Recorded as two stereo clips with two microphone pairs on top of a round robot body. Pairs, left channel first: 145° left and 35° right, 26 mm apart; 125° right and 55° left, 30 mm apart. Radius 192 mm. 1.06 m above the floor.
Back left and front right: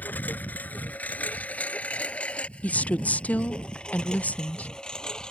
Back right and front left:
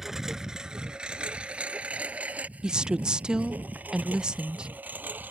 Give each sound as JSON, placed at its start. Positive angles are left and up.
{"t": 0.0, "sound": "a lawn mower", "azimuth_deg": 135}
{"t": 2.6, "sound": "a woman speaking", "azimuth_deg": 120}